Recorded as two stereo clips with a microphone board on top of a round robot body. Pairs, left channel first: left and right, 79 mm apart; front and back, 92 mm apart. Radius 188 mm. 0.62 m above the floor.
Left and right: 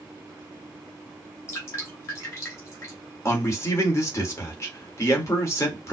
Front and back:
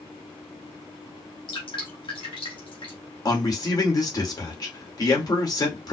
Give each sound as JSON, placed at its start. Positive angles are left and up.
{"t": 1.5, "sound": "dripping", "azimuth_deg": 35, "distance_m": 3.0}
{"t": 3.2, "sound": "a man speaking", "azimuth_deg": 45, "distance_m": 2.5}